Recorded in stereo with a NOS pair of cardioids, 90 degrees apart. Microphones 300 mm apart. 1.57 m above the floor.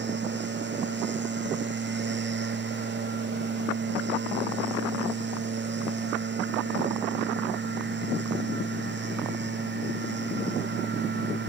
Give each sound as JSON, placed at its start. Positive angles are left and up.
{"t": 0.0, "sound": "a machine running", "azimuth_deg": -35}